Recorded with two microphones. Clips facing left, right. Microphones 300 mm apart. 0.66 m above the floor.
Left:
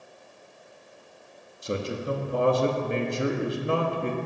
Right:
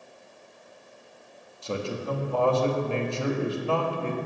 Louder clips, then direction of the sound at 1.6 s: Left 1 dB; 20° left (ahead or behind).